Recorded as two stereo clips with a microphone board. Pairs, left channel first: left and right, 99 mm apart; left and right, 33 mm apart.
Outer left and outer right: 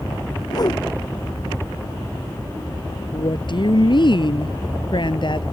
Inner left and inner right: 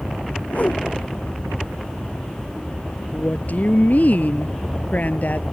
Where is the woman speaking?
55° left (ahead or behind).